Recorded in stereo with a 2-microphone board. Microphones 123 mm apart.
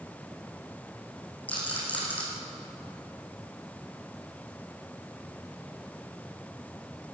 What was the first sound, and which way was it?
A rattle, 15° left (ahead or behind).